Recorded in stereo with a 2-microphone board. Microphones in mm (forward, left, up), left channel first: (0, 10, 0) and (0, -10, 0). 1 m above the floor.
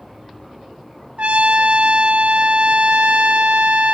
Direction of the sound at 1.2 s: 85° right.